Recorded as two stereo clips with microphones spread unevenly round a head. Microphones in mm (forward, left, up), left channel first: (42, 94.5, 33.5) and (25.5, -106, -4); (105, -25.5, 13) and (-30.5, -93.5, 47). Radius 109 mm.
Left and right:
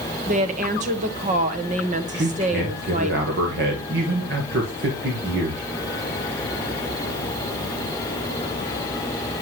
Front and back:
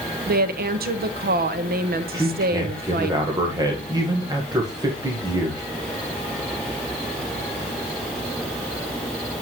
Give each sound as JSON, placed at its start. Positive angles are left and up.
{"t": 0.3, "sound": "a woman speaking", "azimuth_deg": -135, "distance_m": 1.0}
{"t": 2.1, "sound": "a man speaking", "azimuth_deg": -85, "distance_m": 1.5}